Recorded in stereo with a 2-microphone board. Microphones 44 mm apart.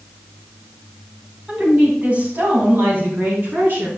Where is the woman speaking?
25° right (ahead or behind), 3.5 m; by 3.9 s 50° right (ahead or behind), 5.5 m.